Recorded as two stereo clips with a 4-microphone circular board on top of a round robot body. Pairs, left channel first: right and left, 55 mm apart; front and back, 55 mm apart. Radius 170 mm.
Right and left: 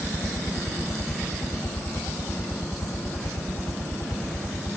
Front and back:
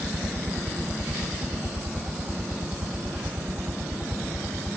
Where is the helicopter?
125° right; by 4.8 s 105° right.